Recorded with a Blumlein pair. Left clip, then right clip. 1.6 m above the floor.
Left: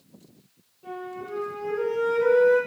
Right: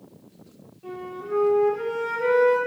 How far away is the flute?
About 0.7 m.